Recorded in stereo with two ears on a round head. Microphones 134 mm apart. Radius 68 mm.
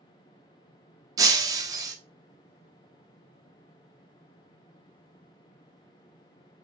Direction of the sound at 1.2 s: 25° right (ahead or behind).